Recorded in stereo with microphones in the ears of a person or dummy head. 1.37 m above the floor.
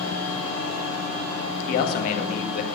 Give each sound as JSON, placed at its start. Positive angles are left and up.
{"t": 1.7, "sound": "a man speaking", "side_deg": 50, "distance_m": 1.9}